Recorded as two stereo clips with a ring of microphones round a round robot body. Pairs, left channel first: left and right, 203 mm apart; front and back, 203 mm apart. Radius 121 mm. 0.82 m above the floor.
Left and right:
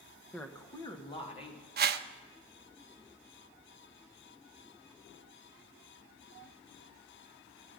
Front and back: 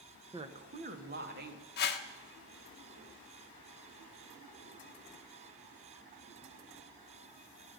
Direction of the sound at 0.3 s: 165° left.